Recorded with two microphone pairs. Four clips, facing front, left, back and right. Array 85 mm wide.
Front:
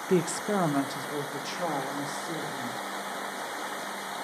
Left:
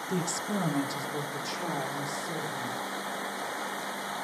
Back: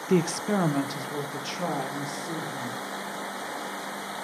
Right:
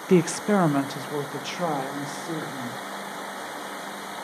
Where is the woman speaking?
90° right, 0.6 m; by 2.8 s 85° right, 4.5 m.